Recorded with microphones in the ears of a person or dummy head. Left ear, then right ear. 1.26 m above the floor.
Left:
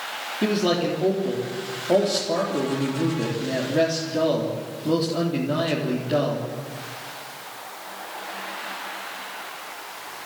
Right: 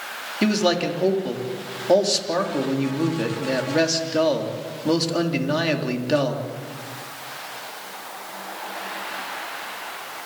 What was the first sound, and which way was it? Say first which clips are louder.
A man speaking: right 2 dB; 65° right (ahead or behind).